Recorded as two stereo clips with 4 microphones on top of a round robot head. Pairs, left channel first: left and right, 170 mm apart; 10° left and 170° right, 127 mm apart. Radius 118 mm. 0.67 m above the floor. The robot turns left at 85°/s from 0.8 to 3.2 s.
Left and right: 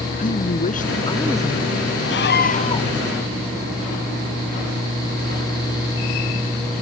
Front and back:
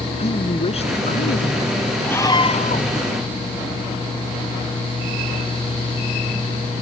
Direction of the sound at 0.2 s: 50° left.